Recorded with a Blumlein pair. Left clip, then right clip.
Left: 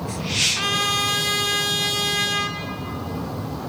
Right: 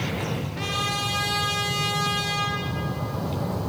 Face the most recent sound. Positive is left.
turn(degrees=65)